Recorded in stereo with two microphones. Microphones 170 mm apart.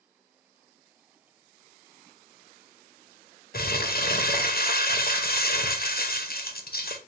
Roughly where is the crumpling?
Left.